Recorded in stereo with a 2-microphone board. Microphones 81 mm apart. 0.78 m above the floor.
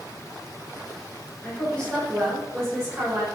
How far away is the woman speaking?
About 3 m.